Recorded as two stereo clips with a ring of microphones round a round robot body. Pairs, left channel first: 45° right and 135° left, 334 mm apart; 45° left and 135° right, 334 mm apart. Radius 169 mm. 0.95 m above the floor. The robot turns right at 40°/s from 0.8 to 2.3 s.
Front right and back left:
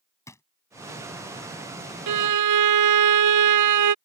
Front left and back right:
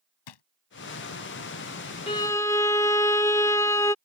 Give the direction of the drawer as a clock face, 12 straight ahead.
11 o'clock.